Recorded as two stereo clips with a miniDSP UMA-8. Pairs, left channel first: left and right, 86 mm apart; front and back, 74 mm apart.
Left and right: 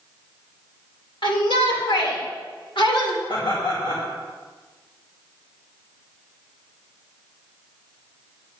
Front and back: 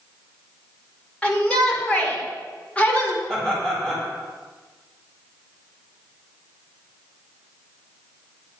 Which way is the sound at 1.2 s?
75° left.